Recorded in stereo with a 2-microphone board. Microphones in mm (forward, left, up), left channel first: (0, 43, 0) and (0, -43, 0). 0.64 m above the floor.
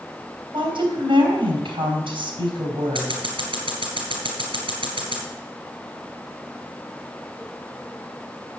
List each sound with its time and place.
0.5 s a woman speaking: 80° right, 4 m
3.0 s scissors: 75° right (ahead or behind), 4 m